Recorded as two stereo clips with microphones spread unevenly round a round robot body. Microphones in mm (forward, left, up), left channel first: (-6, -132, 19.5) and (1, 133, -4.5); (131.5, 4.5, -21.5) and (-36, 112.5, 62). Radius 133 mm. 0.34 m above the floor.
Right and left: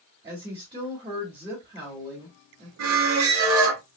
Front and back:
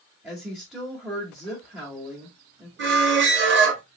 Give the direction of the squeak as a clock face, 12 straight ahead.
8 o'clock.